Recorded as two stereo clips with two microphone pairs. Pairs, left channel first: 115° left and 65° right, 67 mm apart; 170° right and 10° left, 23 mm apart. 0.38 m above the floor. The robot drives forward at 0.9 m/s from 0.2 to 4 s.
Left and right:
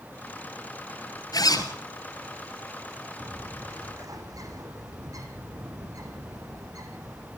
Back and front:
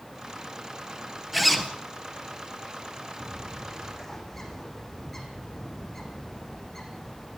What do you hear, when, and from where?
1.3 s a zipper: 95° left, 2.5 m; by 1.7 s 105° left, 2.5 m
3.2 s a bird: 80° right, 4.5 m; by 7.4 s 90° right, 4.5 m